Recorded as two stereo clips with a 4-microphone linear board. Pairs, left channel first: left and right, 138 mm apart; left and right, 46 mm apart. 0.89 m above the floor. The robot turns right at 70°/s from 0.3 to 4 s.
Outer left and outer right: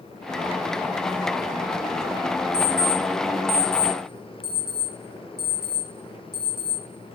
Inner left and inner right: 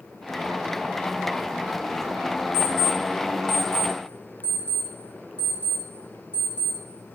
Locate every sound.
2.5 s an alarm clock: 45° right (ahead or behind), 1.4 m; by 6.8 s 30° right (ahead or behind), 1.4 m